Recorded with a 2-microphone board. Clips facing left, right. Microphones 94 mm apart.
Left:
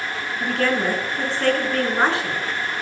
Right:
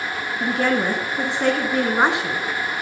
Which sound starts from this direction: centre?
A woman speaking, at 0.4 s.